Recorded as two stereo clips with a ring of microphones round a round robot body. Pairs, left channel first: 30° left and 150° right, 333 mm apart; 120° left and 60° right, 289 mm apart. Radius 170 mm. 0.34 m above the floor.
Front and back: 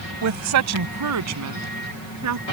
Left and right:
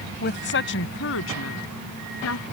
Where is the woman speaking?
175° left; by 2.4 s 170° left.